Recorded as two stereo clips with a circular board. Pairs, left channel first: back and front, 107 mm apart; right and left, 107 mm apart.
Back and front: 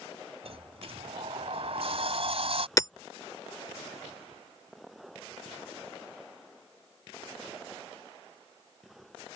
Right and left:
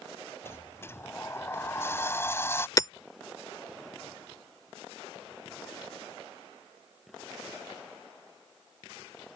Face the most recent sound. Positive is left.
turn(degrees=-135)